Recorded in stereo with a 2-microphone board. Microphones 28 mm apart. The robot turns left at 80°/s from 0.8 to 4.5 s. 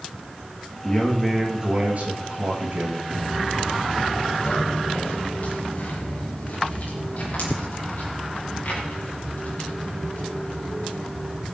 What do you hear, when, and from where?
0.8 s a man speaking: 40° left, 5.5 m; by 3.0 s 130° right, 5.5 m
3.1 s footsteps: 65° right (ahead or behind), 2.5 m; by 11.4 s 55° left (ahead or behind), 14.5 m